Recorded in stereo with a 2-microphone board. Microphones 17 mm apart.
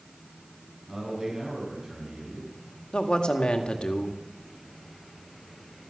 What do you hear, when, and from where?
0.9 s a man speaking: 40° right (ahead or behind), 7 m
2.9 s a man speaking: 65° left (ahead or behind), 1.6 m